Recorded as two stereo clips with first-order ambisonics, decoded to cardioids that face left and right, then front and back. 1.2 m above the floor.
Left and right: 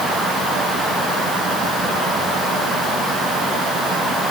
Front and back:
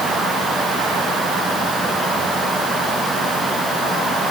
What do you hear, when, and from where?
Only background noise.